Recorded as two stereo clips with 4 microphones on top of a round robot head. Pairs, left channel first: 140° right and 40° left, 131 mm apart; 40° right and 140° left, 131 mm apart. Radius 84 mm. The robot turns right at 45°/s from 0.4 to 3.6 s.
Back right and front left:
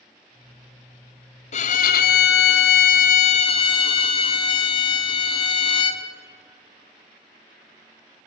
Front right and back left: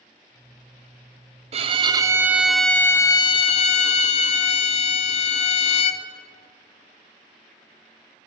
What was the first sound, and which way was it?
A violin, 175° right.